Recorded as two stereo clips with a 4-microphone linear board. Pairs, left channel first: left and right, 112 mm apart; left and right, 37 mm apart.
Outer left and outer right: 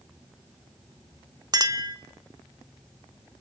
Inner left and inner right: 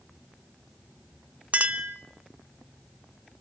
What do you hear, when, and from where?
1.5 s a clink: 35° right (ahead or behind), 0.9 m